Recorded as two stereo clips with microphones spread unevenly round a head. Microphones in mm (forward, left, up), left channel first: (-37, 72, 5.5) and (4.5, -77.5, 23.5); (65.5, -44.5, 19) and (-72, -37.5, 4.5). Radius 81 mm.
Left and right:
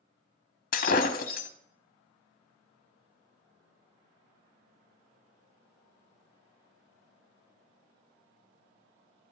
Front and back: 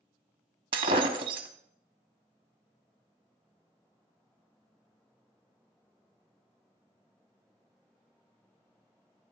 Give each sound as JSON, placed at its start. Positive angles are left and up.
{"t": 0.7, "sound": "breaking glass", "azimuth_deg": 120, "distance_m": 1.0}